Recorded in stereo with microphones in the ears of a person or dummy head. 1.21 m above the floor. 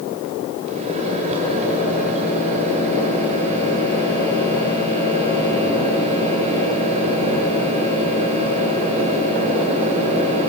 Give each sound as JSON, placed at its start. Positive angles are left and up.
{"t": 0.7, "sound": "a microwave", "side_deg": -40, "distance_m": 4.5}